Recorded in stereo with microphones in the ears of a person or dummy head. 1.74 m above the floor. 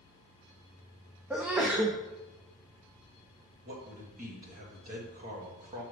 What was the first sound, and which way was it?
A sneeze, 10° right (ahead or behind).